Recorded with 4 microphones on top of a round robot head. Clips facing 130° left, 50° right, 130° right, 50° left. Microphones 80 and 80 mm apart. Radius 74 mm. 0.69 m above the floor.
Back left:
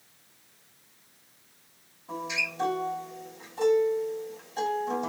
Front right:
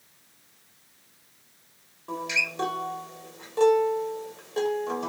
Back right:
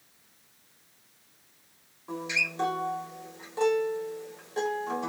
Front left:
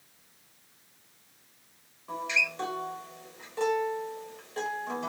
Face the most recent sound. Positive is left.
turn(degrees=-60)